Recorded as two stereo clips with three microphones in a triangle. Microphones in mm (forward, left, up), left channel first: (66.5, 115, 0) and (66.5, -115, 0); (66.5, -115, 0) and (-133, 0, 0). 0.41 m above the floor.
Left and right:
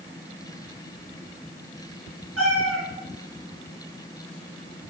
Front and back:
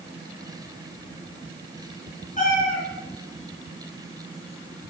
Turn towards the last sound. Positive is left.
turn(degrees=-85)